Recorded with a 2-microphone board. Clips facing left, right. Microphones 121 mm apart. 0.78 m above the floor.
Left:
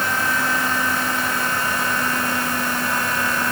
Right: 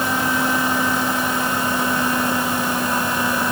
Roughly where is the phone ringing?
I don't hear a phone ringing.